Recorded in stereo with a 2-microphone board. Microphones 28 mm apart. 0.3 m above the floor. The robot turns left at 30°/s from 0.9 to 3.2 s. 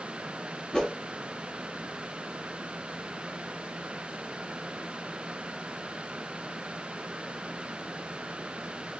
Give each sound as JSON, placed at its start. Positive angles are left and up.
{"t": 0.7, "sound": "a whoosh", "side_deg": 20, "distance_m": 0.9}